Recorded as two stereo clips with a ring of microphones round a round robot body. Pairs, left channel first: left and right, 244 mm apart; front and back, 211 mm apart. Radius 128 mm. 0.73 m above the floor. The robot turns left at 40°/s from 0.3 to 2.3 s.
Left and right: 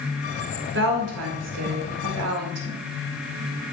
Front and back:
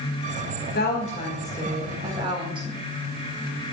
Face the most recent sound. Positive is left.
turn(degrees=-110)